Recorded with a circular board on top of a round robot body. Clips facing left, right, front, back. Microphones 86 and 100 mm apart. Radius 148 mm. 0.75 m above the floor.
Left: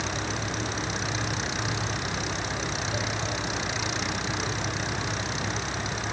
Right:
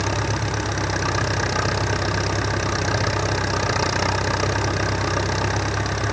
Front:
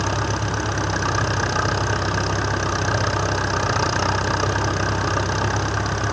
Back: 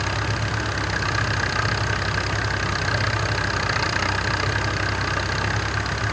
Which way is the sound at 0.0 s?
60° right.